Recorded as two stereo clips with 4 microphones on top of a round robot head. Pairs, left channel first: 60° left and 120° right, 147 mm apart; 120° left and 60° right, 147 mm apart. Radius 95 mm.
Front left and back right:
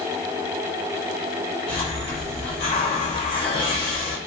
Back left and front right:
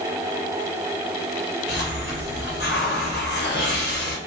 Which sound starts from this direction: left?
A hiss, at 1.7 s.